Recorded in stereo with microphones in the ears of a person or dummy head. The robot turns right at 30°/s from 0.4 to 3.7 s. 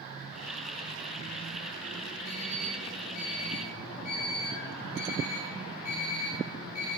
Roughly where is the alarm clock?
Left.